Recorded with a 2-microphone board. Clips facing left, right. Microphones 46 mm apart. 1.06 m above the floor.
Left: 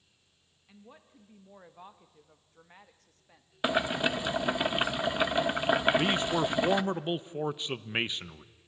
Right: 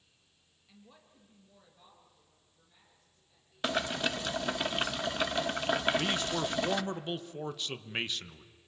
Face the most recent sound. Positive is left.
turn(degrees=20)  # may be behind; listen again after turning